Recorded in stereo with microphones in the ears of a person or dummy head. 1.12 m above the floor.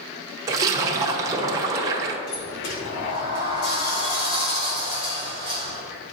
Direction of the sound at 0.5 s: 20° right (ahead or behind).